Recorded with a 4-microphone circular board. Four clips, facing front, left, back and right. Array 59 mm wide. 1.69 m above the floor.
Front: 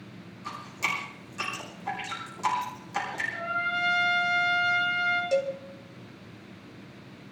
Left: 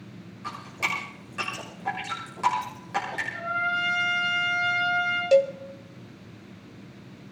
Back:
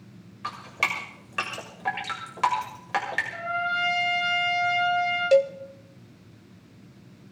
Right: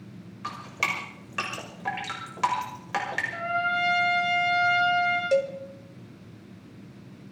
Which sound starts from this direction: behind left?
A cowbell, at 5.3 s.